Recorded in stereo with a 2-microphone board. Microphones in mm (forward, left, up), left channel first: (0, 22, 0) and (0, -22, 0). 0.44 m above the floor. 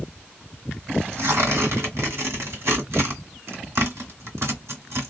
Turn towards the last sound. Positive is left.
turn(degrees=-80)